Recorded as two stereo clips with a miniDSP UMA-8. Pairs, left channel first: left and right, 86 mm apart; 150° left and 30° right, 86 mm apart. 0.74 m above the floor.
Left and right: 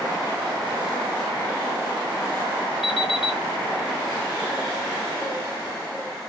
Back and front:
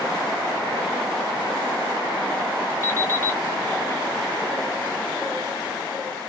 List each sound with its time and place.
2.8 s an alarm clock: 90° left, 1.5 m